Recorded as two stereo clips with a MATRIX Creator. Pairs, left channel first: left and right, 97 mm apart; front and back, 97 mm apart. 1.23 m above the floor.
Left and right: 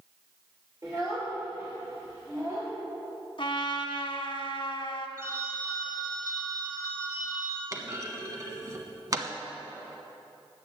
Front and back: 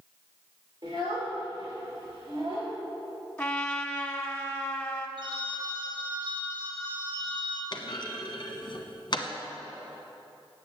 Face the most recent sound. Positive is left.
turn(degrees=-40)